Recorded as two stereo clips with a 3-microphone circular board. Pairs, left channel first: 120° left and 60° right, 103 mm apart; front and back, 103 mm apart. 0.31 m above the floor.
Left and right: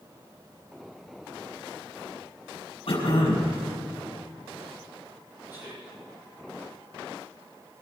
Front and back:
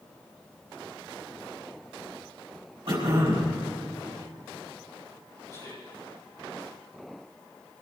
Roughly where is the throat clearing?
Behind left.